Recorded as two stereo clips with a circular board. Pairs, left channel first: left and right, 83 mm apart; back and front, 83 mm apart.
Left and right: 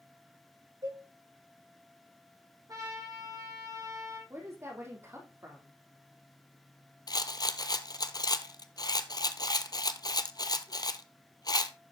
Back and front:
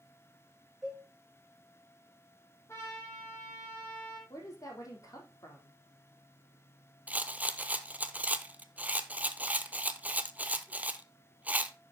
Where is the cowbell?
85° right, 6 m.